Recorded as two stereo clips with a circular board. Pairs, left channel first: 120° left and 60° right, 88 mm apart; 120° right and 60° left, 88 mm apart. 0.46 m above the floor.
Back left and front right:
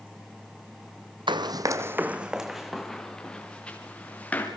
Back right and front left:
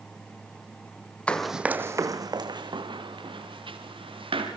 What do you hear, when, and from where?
1.3 s running footsteps: 45° right, 1.0 m; by 4.5 s 45° left, 4 m